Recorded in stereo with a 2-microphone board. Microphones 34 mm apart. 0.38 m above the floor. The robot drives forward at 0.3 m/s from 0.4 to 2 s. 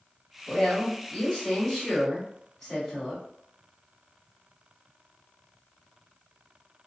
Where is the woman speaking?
10° left (ahead or behind), 1.8 m; by 3.2 s 5° left (ahead or behind), 2 m.